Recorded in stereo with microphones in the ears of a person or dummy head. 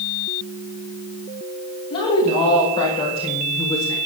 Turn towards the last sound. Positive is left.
turn(degrees=25)  # may be behind; listen again after turning